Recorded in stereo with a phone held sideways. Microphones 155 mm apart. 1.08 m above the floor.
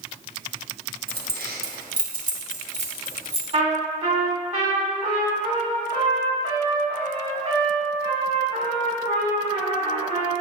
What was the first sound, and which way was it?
Keys jangling, 80° right.